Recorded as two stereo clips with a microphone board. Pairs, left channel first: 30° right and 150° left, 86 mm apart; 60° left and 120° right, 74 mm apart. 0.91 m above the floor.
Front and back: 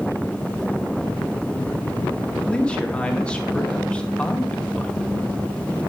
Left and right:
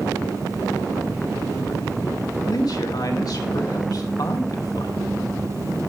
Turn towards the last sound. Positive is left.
turn(degrees=45)